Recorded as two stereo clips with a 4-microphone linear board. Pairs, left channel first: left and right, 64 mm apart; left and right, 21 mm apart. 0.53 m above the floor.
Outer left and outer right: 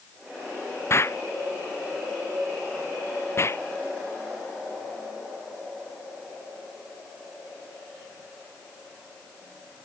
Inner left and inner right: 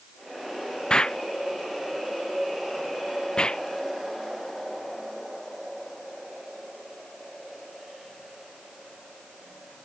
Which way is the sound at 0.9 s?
45° left (ahead or behind).